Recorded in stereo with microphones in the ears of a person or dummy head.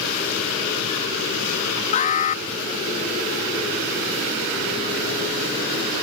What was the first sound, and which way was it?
An alarm, 40° left (ahead or behind).